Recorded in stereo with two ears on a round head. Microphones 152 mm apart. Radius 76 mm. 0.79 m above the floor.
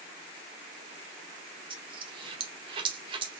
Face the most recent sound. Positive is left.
turn(degrees=-30)  # may be behind; listen again after turning